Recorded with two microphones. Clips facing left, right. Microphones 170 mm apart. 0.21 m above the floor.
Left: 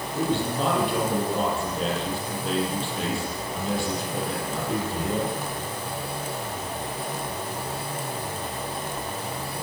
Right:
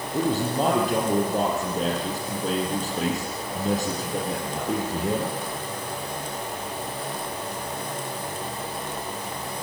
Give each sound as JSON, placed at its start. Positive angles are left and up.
{"t": 0.1, "sound": "a man speaking", "side_deg": -40, "distance_m": 7.0}